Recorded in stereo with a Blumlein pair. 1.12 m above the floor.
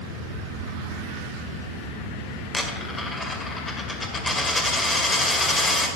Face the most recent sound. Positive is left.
turn(degrees=10)